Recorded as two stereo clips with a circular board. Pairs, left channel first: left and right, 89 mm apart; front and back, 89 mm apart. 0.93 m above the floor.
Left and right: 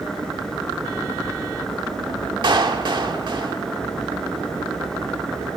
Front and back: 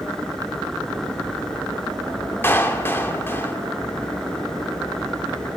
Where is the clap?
65° right, 2 m.